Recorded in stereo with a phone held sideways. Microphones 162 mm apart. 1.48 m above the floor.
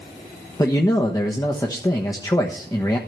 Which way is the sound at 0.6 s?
20° left (ahead or behind).